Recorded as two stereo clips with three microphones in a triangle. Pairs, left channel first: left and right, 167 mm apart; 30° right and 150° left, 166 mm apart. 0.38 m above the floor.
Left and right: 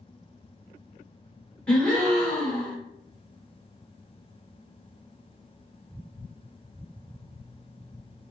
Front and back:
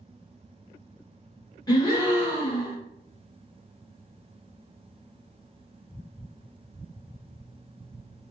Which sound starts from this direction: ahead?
A gasp, at 1.7 s.